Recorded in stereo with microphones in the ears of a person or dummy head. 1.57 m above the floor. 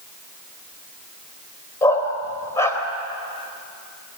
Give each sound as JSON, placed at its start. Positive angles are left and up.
{"t": 1.8, "sound": "a dog barking", "side_deg": 20, "distance_m": 3.5}